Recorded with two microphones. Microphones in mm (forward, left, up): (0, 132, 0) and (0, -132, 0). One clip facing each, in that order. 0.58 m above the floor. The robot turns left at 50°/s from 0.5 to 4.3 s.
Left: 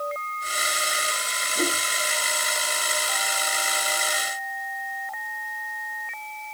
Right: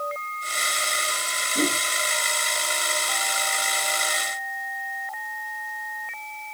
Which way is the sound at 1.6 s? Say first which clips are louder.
Right 2 dB; 50° right (ahead or behind).